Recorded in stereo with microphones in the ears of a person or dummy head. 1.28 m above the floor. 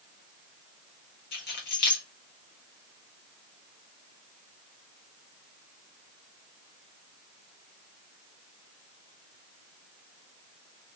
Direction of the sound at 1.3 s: 65° left (ahead or behind).